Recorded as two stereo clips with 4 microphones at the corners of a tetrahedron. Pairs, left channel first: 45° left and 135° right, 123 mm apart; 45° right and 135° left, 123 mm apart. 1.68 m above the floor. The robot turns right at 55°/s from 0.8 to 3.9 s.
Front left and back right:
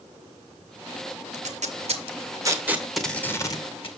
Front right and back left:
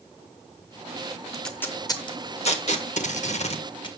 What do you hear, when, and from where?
1.3 s tape being pulled: 135° right, 1.6 m; by 3.9 s 5° left, 1.6 m